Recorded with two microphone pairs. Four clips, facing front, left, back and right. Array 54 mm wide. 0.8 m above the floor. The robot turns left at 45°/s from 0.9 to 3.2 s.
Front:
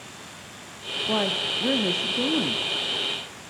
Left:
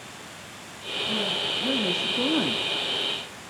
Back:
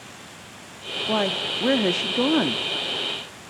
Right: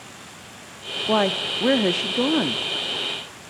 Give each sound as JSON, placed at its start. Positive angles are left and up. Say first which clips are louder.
{"t": 1.1, "sound": "a woman speaking", "louder": "right 9 dB, back 2 dB", "azimuth_deg": -110, "distance_m": 1.2}